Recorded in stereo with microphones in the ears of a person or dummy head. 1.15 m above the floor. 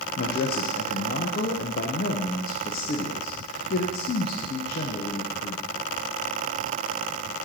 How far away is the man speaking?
About 0.9 m.